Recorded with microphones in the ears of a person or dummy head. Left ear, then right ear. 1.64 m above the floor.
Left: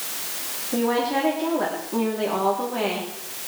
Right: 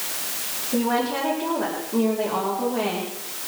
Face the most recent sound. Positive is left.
turn(degrees=85)